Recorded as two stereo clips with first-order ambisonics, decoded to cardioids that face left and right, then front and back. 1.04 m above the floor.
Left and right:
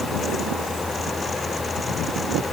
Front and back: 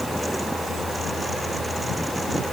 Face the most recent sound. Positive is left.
No sound to turn to.